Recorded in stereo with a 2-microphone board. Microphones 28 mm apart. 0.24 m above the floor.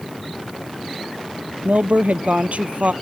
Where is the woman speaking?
65° right (ahead or behind).